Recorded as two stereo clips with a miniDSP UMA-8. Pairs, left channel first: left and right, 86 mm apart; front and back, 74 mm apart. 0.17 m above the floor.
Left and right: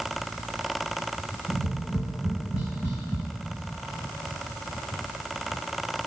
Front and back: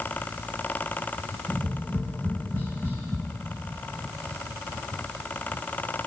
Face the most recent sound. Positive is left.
turn(degrees=-120)